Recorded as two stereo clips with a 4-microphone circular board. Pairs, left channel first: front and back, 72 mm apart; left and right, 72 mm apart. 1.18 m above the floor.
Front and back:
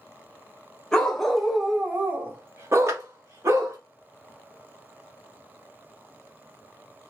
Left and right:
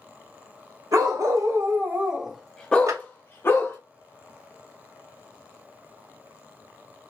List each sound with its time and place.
0.9 s a dog barking: 80° right, 1.0 m; by 3.8 s 135° left, 1.2 m
2.9 s a clap: 130° right, 0.9 m